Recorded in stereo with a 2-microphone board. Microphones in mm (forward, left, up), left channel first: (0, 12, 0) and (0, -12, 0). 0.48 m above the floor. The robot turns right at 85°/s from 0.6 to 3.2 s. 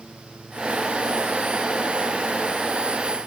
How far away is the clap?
I don't hear a clap.